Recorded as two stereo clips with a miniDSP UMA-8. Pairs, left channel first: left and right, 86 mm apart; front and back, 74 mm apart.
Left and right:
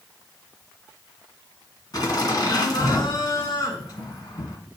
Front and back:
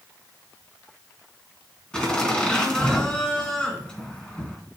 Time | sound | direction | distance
1.9 | laughter | 75° left | 2.5 m